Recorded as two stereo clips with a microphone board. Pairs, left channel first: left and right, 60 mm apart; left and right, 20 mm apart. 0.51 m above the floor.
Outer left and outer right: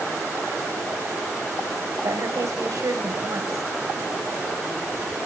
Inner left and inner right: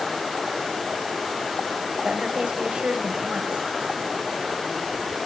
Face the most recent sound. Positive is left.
turn(degrees=-70)  # may be behind; listen again after turning